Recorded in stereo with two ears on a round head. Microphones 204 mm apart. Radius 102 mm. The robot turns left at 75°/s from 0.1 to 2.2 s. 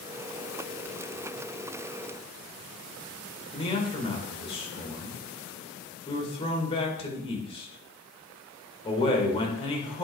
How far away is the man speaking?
About 1.9 m.